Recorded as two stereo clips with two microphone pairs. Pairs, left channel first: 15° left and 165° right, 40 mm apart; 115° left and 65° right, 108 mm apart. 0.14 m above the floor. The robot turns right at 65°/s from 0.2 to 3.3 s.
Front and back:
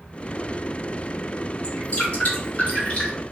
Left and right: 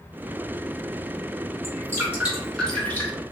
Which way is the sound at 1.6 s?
35° right.